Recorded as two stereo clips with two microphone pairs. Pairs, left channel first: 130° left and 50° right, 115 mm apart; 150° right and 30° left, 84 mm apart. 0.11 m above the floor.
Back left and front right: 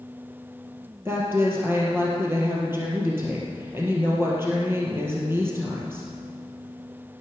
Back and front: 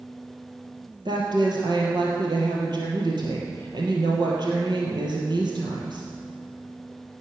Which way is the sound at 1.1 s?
20° left.